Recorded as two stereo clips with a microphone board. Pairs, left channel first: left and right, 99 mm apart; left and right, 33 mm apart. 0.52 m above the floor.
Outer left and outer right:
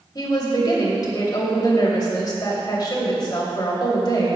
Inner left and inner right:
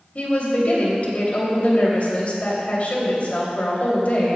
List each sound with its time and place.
0.1 s a woman speaking: 45° left (ahead or behind), 2.5 m